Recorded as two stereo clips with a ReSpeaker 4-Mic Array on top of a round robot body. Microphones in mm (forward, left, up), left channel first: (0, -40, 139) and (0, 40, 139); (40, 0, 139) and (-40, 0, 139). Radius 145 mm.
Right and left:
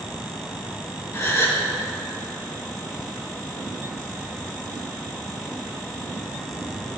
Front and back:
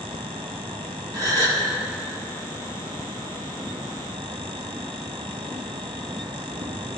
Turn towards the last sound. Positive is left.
turn(degrees=-145)